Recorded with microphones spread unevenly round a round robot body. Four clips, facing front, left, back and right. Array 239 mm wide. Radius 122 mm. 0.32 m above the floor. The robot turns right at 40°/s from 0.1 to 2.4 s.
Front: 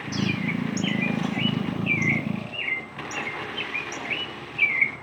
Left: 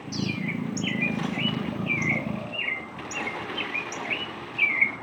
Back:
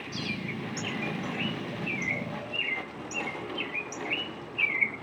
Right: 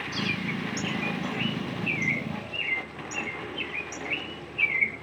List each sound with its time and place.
0.1 s a bird: 25° right, 3 m; by 5.0 s 65° left, 3 m